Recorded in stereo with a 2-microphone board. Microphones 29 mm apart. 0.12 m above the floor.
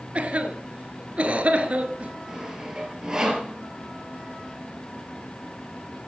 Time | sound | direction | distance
0.1 | a cough | 45° right (ahead or behind) | 1.5 m
2.3 | sawing | 25° right (ahead or behind) | 2.5 m